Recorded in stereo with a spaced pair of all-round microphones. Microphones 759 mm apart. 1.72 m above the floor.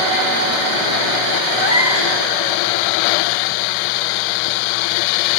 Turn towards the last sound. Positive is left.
turn(degrees=55)  # may be behind; listen again after turning